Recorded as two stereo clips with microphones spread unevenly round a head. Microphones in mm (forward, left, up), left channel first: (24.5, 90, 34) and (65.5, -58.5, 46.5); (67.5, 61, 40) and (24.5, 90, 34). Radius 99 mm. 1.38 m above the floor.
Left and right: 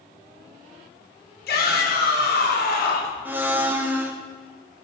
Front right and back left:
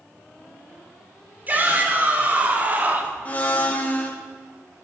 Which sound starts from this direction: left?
A shout, at 1.5 s.